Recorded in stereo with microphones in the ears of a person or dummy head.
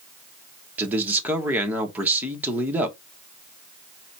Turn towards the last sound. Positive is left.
turn(degrees=-15)  # may be behind; listen again after turning